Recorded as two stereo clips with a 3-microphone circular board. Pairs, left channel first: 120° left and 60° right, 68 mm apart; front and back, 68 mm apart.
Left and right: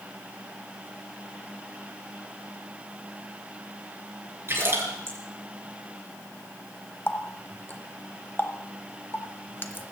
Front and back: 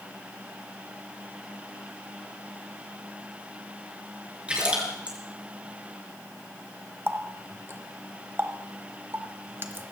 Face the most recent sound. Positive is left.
turn(degrees=155)